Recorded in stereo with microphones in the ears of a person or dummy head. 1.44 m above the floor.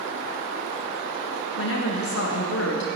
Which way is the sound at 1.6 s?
75° left (ahead or behind).